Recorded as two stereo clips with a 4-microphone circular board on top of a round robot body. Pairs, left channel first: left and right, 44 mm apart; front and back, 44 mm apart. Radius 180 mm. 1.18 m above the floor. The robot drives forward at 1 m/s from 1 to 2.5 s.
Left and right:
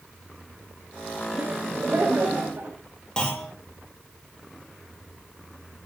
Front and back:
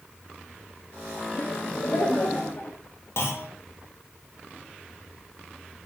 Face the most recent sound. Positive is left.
turn(degrees=20)